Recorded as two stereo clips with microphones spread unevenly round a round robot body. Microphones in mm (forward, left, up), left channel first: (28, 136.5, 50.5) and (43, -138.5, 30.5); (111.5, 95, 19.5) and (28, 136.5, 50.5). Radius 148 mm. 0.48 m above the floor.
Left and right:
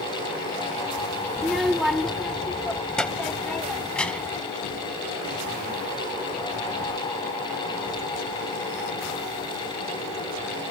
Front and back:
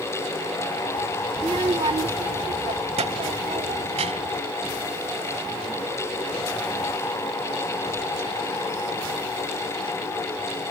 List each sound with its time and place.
1.4 s a child speaking: 165° right; by 4.4 s straight behind